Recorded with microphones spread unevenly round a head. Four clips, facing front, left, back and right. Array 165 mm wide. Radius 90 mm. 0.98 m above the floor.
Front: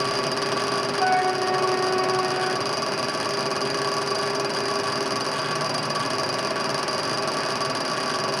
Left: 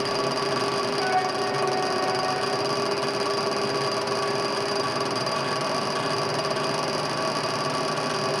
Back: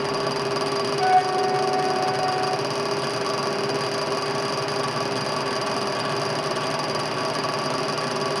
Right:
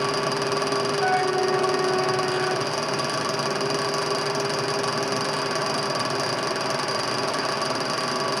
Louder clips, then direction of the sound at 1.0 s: Right 3 dB, back 3 dB; 170° left.